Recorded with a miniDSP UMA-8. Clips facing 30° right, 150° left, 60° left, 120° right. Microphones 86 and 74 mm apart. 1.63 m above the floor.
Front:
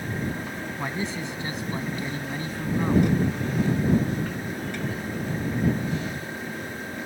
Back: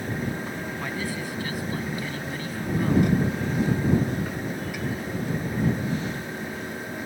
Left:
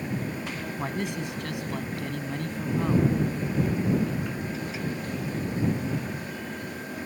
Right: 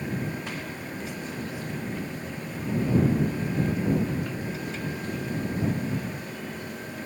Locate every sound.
0.8 s a man speaking: 40° left; by 3.1 s 35° left